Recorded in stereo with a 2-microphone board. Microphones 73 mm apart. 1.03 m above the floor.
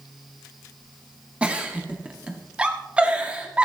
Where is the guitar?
No guitar in this recording.